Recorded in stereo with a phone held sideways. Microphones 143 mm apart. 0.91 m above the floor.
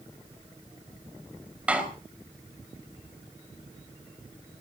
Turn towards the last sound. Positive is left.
turn(degrees=-10)  # may be behind; listen again after turning